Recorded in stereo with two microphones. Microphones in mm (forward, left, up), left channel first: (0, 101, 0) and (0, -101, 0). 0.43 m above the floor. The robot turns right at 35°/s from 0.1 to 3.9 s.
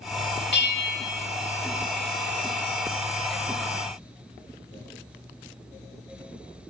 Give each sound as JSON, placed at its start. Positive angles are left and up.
{"t": 0.5, "sound": "a bell", "side_deg": 60, "distance_m": 0.7}